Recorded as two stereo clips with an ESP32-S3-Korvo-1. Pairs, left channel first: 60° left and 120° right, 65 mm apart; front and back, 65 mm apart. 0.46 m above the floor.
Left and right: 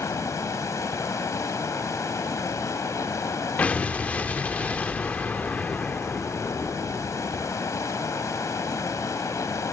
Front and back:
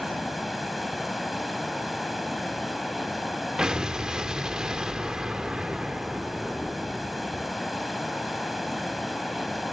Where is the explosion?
110° left, 0.6 m.